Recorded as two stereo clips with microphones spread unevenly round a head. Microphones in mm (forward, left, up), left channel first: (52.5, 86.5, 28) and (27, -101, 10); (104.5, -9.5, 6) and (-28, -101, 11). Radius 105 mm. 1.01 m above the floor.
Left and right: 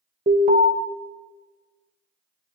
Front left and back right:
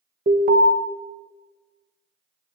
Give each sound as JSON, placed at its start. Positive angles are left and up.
{"t": 0.3, "sound": "an alarm", "azimuth_deg": -135, "distance_m": 1.7}